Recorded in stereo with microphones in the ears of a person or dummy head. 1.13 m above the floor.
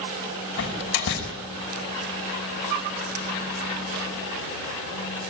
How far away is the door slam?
About 6.5 m.